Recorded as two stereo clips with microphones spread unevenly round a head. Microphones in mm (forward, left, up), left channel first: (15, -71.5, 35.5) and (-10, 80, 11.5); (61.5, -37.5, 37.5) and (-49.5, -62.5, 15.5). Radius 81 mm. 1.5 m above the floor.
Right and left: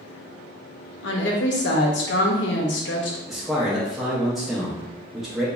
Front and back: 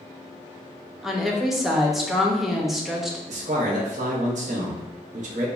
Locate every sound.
1.0 s a woman speaking: 75° right, 0.6 m
3.3 s a man speaking: 165° right, 0.7 m